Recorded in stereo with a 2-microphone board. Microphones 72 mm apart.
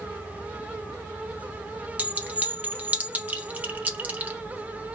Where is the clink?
25° right (ahead or behind), 0.8 m.